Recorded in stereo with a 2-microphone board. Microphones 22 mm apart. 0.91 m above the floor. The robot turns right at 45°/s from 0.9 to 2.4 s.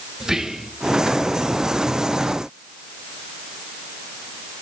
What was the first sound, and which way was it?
Whispering, 20° right (ahead or behind).